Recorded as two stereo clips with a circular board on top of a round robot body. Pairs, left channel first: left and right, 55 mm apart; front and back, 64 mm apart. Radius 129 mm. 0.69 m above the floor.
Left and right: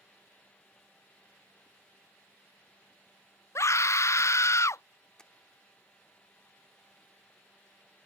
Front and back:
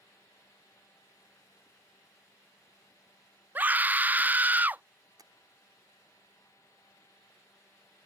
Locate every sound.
3.5 s a scream: 120° left
5.2 s tapping: 170° left